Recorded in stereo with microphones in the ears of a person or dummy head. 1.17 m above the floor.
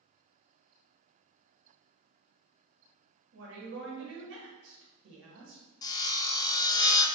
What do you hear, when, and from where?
3.3 s a woman speaking: 60° right (ahead or behind), 1.2 m
5.8 s sawing: 30° left (ahead or behind), 0.5 m